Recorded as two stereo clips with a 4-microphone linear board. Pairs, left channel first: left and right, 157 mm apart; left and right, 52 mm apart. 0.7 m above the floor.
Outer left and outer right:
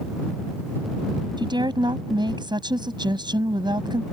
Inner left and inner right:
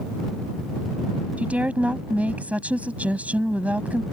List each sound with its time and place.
1.4 s a woman speaking: 30° right (ahead or behind)